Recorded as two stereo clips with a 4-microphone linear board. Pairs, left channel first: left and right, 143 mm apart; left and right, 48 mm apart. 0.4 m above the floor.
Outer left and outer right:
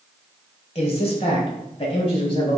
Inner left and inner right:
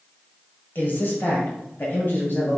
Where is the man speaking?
45° left (ahead or behind), 2 m; by 2.6 s 40° left (ahead or behind), 3 m.